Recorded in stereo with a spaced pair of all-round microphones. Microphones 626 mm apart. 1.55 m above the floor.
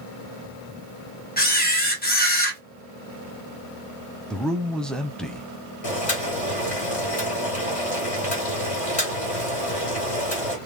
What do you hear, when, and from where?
1.4 s a camera shutter: 15° left (ahead or behind), 1.1 m
4.3 s a man speaking: centre (ahead or behind), 0.7 m
5.8 s boiling: 60° left (ahead or behind), 2 m